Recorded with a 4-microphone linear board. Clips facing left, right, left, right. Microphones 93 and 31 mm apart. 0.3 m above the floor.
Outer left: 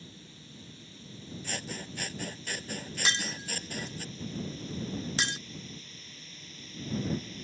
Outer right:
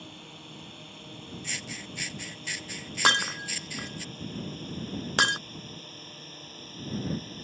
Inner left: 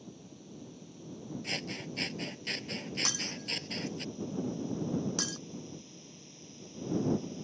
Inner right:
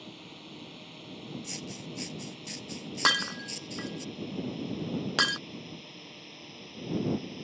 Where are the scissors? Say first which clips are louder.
Outer left 1 dB, inner left 3 dB; 45° left (ahead or behind).